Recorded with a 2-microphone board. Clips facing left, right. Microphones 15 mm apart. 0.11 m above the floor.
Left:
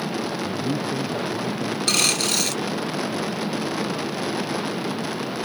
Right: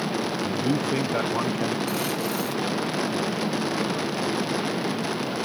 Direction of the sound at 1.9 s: 75° left (ahead or behind).